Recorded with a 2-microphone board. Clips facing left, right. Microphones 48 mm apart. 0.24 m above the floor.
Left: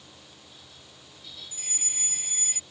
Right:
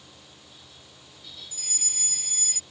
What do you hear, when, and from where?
1.5 s a fire alarm: 20° left (ahead or behind)